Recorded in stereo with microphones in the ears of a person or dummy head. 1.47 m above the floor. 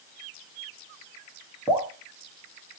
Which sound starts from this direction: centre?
Dripping, at 1.7 s.